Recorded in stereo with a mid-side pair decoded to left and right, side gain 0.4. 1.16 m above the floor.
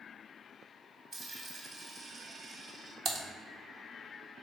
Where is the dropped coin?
45° right, 2 m.